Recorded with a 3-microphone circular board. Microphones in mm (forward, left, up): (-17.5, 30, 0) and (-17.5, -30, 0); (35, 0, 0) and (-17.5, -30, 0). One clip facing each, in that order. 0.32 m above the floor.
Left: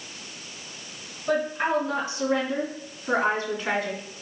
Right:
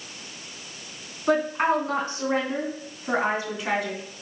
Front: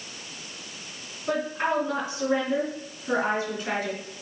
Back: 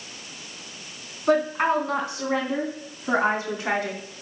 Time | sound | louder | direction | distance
1.3 | a woman speaking | right 3 dB, back 5 dB | 115° right | 2.5 m